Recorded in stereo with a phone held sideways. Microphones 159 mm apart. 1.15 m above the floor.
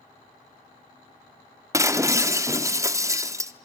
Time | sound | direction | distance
1.7 | breaking glass | 20° right (ahead or behind) | 0.7 m